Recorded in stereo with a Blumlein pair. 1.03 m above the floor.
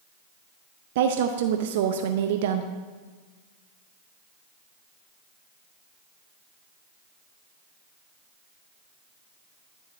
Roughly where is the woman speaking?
Ahead right.